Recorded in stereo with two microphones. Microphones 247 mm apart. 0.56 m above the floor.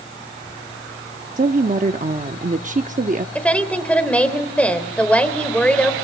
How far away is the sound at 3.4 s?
About 2.5 m.